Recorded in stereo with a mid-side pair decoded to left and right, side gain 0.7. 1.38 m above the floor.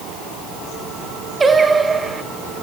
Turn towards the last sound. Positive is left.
turn(degrees=-20)